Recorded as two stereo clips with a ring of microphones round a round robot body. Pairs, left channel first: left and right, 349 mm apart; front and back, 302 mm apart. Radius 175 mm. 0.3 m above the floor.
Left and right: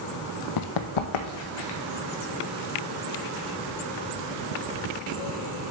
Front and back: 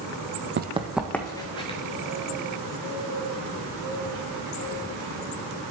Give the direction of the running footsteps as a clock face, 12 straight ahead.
8 o'clock.